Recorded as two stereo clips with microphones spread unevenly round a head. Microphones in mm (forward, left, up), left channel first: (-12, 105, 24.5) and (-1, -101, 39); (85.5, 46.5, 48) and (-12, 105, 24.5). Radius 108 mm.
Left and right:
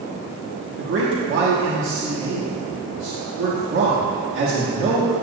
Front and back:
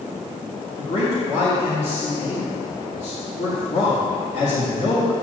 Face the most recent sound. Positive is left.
turn(degrees=-70)